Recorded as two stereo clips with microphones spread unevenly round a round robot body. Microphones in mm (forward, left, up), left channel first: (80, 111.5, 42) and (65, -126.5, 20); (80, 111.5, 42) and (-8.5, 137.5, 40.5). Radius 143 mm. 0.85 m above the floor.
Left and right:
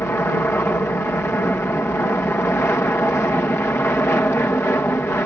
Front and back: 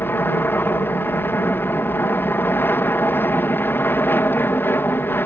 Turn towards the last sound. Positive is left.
turn(degrees=10)